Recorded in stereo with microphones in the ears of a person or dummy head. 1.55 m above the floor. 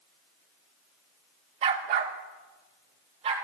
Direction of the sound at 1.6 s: 35° right (ahead or behind).